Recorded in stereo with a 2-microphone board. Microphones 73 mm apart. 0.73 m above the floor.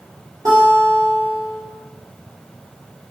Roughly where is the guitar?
Right.